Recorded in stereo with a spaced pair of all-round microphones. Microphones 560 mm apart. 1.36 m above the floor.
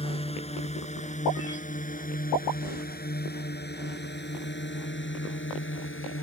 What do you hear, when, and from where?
0.0 s a drone: 10° left (ahead or behind); by 6.2 s 20° left (ahead or behind)